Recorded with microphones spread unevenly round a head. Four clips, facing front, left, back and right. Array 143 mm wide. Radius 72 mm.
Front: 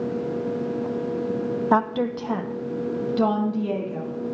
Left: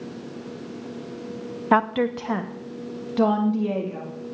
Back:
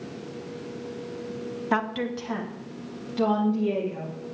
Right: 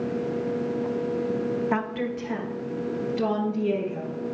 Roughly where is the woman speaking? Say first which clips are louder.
Left 7 dB, front 4 dB; ahead left.